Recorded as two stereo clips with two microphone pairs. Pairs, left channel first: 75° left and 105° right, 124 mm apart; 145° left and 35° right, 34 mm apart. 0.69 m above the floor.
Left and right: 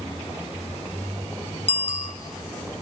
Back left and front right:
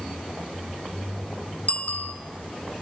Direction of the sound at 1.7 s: 105° left.